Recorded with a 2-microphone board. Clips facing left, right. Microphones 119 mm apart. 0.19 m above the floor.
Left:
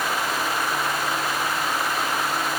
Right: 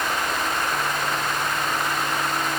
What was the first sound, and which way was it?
Only background noise.